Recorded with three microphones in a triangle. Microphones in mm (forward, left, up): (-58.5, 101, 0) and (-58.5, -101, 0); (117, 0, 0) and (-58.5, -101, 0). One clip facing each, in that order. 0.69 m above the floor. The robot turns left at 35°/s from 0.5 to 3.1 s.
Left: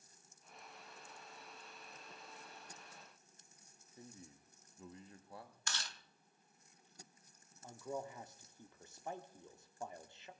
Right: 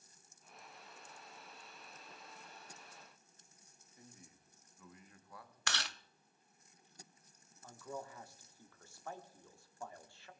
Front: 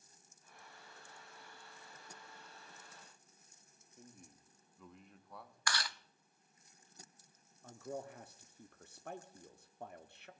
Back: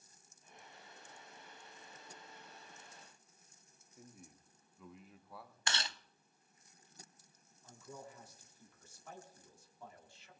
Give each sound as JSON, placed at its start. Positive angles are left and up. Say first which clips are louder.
{"t": 4.0, "sound": "a man speaking", "louder": "left 5 dB, back 1 dB", "azimuth_deg": 125, "distance_m": 1.1}
{"t": 5.7, "sound": "chewing", "louder": "right 8 dB, front 1 dB", "azimuth_deg": -85, "distance_m": 0.5}
{"t": 7.6, "sound": "a man speaking", "louder": "left 3 dB, front 7 dB", "azimuth_deg": 25, "distance_m": 1.2}